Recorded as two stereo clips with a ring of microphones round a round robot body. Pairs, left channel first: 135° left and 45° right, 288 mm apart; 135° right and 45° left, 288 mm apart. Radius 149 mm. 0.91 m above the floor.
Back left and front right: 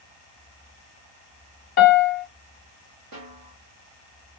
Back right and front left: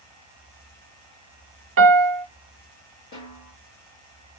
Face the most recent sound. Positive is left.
turn(degrees=-85)